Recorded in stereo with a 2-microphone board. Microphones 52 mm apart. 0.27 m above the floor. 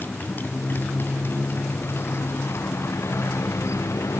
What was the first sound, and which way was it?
A motorcycle, 35° left (ahead or behind).